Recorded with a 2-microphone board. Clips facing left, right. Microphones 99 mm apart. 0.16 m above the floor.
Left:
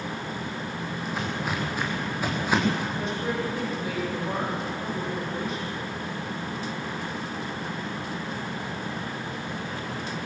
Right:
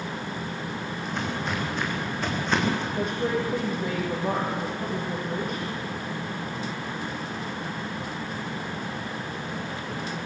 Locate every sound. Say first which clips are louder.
1.0 s footsteps: even; 5° left (ahead or behind), 8.5 m; by 2.9 s 10° left (ahead or behind), 5.5 m
3.0 s a woman speaking: right 2 dB; 50° right (ahead or behind), 6.5 m